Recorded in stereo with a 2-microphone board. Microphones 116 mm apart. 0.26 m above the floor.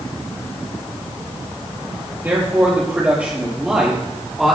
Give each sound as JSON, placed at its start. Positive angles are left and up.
{"t": 2.2, "sound": "a man speaking", "side_deg": -20, "distance_m": 5.0}